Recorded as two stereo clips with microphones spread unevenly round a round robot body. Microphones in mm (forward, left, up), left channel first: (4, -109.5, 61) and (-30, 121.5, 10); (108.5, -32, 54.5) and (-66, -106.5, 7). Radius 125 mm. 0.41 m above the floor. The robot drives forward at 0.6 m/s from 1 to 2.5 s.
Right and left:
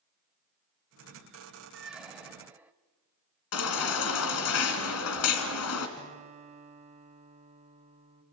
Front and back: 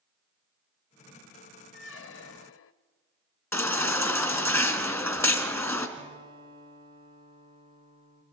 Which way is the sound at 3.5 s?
55° right.